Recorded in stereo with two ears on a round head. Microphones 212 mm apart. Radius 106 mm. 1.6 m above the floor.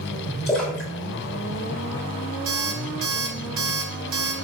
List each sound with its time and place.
0.5 s a splash: centre (ahead or behind), 6 m
2.5 s an alarm clock: 65° right (ahead or behind), 4 m